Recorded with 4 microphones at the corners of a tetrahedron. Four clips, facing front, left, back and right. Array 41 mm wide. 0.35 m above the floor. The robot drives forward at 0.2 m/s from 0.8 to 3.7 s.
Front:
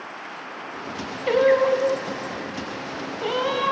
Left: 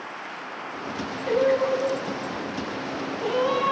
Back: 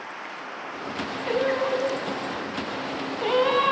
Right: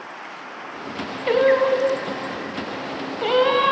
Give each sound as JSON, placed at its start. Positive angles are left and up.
{"t": 1.3, "sound": "singing", "azimuth_deg": -65, "distance_m": 0.7}